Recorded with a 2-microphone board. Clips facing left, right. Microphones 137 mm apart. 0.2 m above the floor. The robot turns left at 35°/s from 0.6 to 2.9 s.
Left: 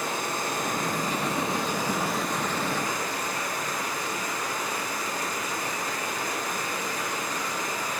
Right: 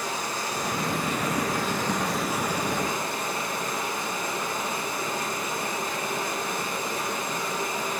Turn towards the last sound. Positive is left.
turn(degrees=-25)